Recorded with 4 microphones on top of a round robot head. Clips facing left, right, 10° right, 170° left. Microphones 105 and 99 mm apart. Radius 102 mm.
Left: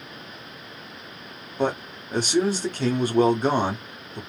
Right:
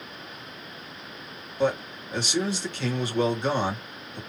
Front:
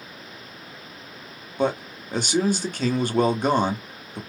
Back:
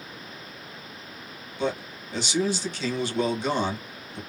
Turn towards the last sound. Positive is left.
turn(degrees=35)